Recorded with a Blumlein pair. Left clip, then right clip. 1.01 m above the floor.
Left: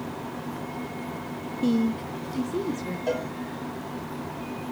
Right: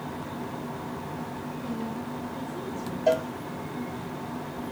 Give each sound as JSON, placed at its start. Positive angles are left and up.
{"t": 1.6, "sound": "a woman speaking", "azimuth_deg": 50, "distance_m": 0.5}
{"t": 3.1, "sound": "a cowbell", "azimuth_deg": -55, "distance_m": 2.5}